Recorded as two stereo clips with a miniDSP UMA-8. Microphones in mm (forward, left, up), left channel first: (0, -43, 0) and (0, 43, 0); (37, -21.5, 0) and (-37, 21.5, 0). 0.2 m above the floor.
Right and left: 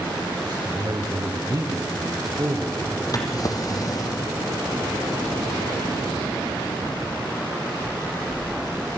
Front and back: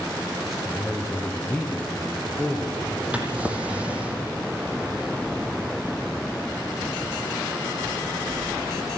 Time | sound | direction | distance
0.5 | a man speaking | 60° left | 3.5 m
3.1 | a drawer | 135° right | 2.5 m